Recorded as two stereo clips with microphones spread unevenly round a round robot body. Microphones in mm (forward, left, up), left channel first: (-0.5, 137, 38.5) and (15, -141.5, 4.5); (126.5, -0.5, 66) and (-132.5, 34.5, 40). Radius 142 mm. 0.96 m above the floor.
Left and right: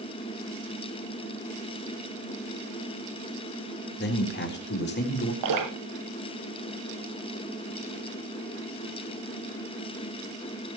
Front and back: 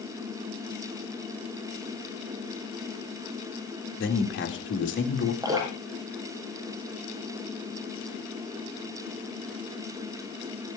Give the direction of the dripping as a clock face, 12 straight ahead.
4 o'clock.